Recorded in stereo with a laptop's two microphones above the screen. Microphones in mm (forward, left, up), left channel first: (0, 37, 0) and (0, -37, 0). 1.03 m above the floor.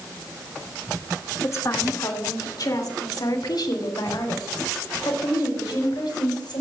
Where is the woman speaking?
45° left (ahead or behind), 2 m; by 6.6 s 80° left, 5 m.